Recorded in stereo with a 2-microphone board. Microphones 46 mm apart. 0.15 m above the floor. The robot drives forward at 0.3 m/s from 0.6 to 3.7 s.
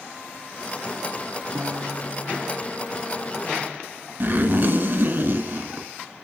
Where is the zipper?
40° right (ahead or behind), 0.9 m.